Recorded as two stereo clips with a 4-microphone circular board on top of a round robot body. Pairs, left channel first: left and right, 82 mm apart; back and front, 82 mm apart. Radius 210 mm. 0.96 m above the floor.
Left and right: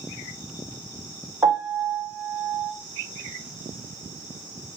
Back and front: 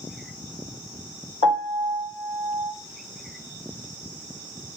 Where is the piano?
Straight behind, 1.5 m.